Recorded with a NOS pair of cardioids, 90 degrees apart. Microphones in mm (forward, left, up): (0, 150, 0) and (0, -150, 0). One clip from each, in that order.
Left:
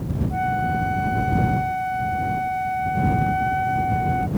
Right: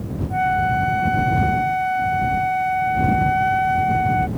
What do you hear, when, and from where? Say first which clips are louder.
0.3 s a flute: right 4 dB; 15° right